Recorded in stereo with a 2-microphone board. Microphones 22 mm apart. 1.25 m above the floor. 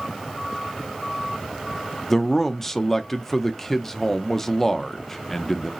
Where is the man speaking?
20° left (ahead or behind), 0.5 m.